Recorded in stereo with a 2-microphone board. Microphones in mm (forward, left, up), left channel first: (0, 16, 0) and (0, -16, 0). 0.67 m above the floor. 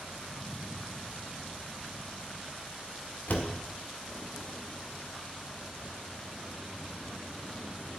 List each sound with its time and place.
3.3 s a door slam: 65° left (ahead or behind), 1.2 m